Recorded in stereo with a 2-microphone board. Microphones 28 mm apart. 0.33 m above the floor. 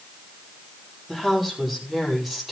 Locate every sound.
1.1 s a woman speaking: centre (ahead or behind), 9.5 m